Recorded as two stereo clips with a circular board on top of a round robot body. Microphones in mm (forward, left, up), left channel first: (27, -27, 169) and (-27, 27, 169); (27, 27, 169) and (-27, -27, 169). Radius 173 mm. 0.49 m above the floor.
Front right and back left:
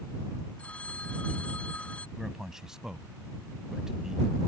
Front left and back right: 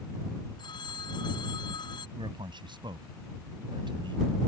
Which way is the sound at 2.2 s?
145° right.